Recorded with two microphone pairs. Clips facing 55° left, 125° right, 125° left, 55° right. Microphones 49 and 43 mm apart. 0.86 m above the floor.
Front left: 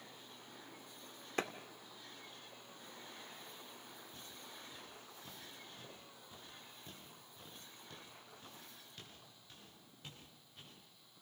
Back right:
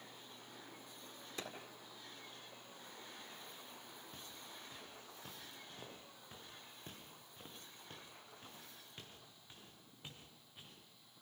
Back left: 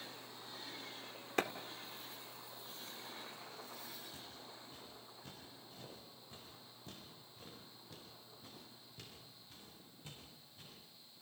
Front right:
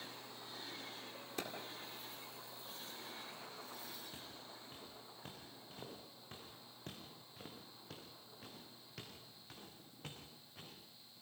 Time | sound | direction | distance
1.4 | a clap | 90° left | 1.8 m
4.1 | footsteps | 110° right | 6.5 m